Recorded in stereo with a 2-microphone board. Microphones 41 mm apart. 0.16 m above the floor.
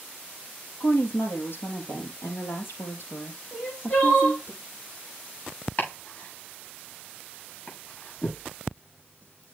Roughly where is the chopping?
Left.